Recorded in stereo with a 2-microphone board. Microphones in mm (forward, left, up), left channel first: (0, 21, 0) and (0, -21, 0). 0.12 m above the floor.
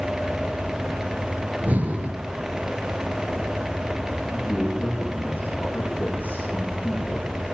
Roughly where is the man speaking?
Left.